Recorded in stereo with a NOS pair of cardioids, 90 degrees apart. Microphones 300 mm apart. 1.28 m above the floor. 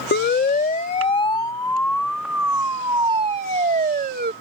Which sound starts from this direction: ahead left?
A siren, at 0.1 s.